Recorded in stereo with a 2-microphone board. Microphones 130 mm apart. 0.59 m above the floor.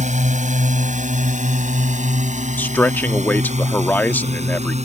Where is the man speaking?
15° left (ahead or behind).